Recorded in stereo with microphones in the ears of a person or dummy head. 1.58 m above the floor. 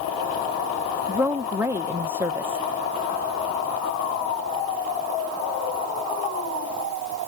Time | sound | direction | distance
1.1 | a woman speaking | 5° right (ahead or behind) | ?